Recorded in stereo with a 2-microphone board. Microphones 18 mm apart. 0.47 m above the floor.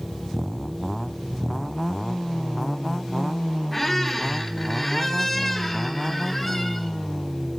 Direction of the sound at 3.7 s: 10° left (ahead or behind).